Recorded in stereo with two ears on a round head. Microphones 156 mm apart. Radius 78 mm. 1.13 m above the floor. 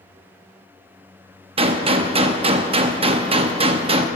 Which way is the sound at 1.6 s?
35° right (ahead or behind).